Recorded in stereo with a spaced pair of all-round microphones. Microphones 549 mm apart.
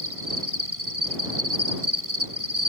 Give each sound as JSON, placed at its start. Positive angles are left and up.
{"t": 0.0, "sound": "an insect", "side_deg": -75}